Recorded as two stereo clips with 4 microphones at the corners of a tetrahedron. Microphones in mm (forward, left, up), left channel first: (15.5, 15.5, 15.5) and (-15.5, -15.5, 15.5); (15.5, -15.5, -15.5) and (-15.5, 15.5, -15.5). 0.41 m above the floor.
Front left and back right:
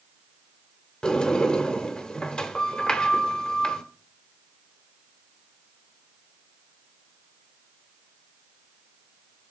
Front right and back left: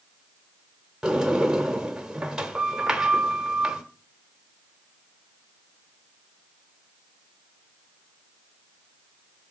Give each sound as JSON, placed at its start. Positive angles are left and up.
{"t": 1.0, "sound": "a sliding door", "azimuth_deg": 85, "distance_m": 1.0}